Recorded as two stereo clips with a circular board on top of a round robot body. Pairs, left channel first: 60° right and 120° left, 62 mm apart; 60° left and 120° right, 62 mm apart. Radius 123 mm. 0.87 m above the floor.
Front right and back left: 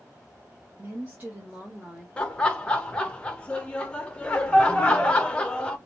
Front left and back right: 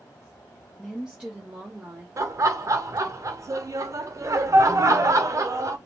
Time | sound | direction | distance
0.8 | a woman speaking | 145° left | 0.9 m
2.2 | laughter | 130° right | 0.9 m